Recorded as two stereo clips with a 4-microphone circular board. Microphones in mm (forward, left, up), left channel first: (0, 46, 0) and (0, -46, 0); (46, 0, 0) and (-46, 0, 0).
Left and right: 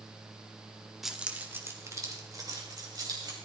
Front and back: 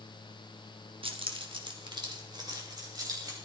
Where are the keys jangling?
175° right, 1.3 m; by 3.4 s 135° right, 4 m.